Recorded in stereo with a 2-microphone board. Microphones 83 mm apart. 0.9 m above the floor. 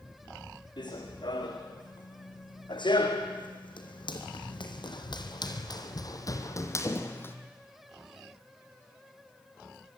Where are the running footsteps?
60° left (ahead or behind), 4.5 m; by 7.3 s 25° left (ahead or behind), 2 m.